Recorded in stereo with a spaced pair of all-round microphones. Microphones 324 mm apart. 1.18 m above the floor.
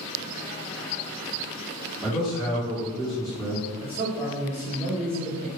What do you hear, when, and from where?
2.0 s a man speaking: 15° right (ahead or behind), 1.8 m
3.8 s a man speaking: 25° right (ahead or behind), 1.7 m